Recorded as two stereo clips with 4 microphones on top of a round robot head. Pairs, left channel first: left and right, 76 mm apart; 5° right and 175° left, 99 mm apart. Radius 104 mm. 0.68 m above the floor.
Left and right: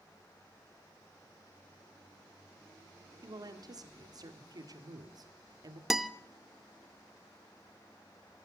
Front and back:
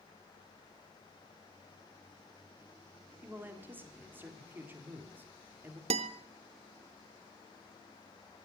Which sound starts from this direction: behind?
A guitar, at 5.9 s.